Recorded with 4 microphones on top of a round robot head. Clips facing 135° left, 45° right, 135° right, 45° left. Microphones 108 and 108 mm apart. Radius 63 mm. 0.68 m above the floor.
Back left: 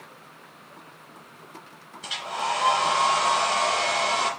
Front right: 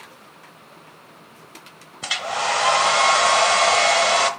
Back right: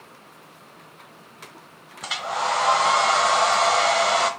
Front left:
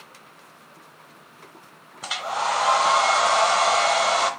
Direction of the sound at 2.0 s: 45° right.